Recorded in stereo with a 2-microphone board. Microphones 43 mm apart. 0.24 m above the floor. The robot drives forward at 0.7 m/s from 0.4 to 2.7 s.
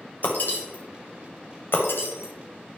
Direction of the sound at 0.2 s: 50° left (ahead or behind).